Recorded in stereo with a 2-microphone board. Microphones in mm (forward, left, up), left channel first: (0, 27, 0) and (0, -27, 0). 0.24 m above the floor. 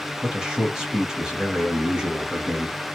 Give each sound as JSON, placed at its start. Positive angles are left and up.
{"t": 0.2, "sound": "a man speaking", "side_deg": -15, "distance_m": 1.0}